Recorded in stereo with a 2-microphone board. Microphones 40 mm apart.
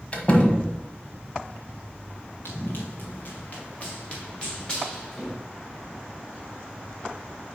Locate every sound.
0.1 s a door slam: 30° left (ahead or behind), 1.2 m
2.5 s running footsteps: 70° left (ahead or behind), 1.8 m; by 5.4 s 20° left (ahead or behind), 3.5 m